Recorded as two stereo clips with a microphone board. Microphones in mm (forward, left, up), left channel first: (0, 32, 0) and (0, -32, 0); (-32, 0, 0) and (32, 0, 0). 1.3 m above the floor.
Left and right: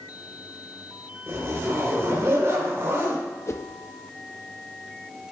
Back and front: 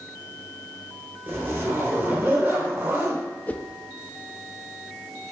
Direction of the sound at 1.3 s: 50° right.